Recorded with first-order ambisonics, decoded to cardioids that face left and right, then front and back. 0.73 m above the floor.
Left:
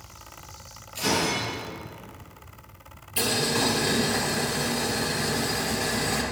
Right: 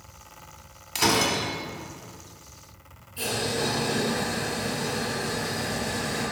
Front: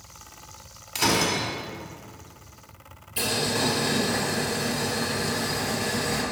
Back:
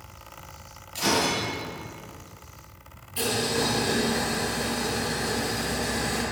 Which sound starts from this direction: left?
Boiling, at 3.2 s.